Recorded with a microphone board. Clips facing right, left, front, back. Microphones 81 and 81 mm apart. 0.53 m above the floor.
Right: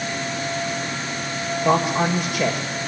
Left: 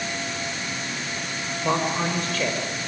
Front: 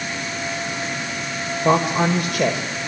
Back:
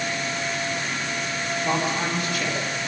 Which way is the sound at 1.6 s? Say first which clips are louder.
Right 5 dB, front 9 dB; 15° right.